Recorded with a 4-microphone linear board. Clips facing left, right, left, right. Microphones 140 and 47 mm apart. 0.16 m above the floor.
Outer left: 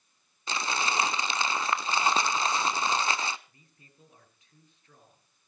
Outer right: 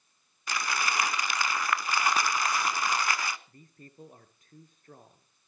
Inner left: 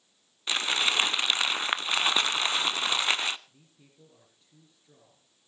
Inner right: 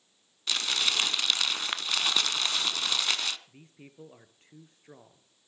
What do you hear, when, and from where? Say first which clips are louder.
0.5 s crumpling: outer left 1 dB, inner left 3 dB; 25° left (ahead or behind), 0.7 m
3.5 s a man speaking: outer right 10 dB, inner right 8 dB; 50° right (ahead or behind), 3 m